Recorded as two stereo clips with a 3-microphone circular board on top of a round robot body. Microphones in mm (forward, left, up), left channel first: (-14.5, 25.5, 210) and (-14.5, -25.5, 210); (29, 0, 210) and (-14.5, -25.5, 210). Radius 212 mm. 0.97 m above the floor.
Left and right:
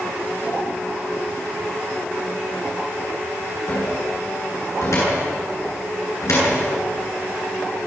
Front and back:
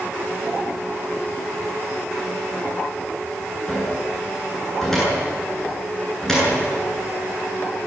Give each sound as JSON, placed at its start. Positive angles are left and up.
{"t": 3.7, "sound": "a cupboard door", "azimuth_deg": 110, "distance_m": 9.5}